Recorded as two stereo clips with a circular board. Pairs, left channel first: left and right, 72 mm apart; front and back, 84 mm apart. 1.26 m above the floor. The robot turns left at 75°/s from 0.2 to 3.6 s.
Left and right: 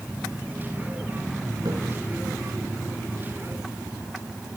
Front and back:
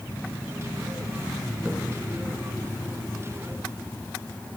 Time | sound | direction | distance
1.6 | a splash | 105° right | 5.5 m